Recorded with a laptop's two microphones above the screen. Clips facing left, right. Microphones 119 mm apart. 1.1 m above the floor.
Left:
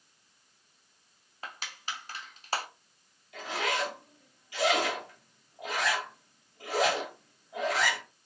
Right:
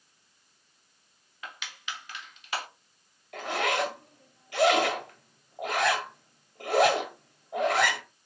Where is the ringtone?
I don't hear a ringtone.